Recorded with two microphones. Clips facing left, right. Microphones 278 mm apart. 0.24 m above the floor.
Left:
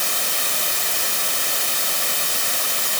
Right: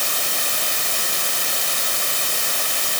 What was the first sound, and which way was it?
Only background noise.